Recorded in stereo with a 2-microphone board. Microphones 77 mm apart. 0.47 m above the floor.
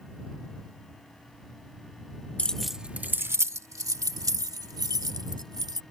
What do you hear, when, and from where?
2.4 s keys jangling: 15° left (ahead or behind); by 5.8 s 60° right (ahead or behind)